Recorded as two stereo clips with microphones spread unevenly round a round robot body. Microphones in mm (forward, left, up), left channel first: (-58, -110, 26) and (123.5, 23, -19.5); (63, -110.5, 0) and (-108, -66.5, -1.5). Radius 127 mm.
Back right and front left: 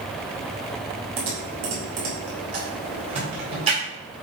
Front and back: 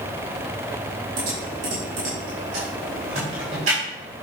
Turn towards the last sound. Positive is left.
turn(degrees=100)